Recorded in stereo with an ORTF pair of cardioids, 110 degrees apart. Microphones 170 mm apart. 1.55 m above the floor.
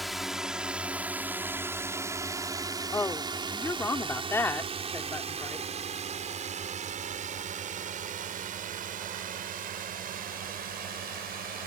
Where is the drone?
Straight ahead; by 11.7 s 60° right.